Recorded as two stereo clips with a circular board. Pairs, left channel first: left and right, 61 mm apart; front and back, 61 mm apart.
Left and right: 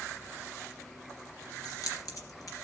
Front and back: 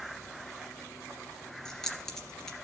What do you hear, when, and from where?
1.6 s keys jangling: 80° left, 2.5 m